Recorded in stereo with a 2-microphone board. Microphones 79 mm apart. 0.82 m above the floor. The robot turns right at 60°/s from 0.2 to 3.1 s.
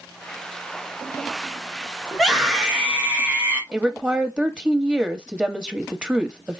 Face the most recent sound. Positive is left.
turn(degrees=-10)  # may be behind; listen again after turning